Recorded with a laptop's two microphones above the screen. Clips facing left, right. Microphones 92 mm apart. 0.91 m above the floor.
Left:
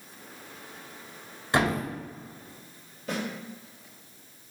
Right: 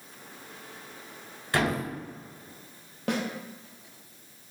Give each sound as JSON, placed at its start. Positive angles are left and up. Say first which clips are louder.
{"t": 1.5, "sound": "a thud", "louder": "left 2 dB", "side_deg": 20, "distance_m": 1.3}
{"t": 3.1, "sound": "a snare drum", "louder": "right 3 dB", "side_deg": -70, "distance_m": 0.7}